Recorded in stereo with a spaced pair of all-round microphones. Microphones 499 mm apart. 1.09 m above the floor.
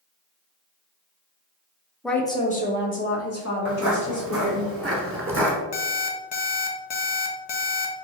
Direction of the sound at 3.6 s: 25° right (ahead or behind).